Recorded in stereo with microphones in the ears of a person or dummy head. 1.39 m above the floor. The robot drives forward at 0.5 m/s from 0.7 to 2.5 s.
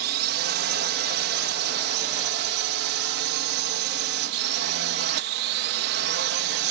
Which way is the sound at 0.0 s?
55° right (ahead or behind).